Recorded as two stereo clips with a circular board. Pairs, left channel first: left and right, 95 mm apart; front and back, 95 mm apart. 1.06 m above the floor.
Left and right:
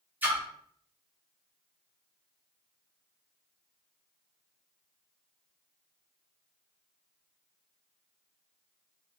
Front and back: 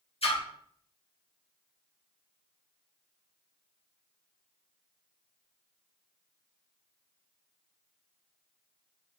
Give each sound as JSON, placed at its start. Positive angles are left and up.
{"t": 0.2, "sound": "a splash", "azimuth_deg": -20, "distance_m": 1.2}